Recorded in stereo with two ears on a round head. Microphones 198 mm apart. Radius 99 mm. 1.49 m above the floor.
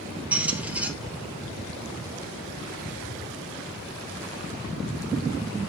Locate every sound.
0.3 s a squeak: 5° right (ahead or behind), 0.7 m